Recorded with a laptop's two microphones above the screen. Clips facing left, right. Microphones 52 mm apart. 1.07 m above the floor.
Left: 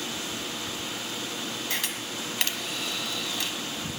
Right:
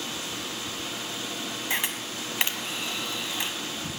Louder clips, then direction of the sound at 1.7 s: Right 2 dB; 25° right (ahead or behind).